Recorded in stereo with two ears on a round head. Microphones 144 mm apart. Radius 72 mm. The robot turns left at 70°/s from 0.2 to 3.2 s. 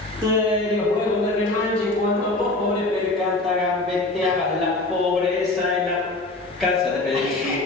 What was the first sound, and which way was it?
Laughter, 150° right.